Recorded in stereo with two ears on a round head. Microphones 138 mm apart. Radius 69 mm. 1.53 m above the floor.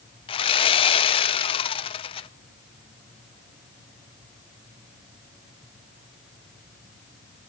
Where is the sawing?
35° left (ahead or behind), 0.7 m.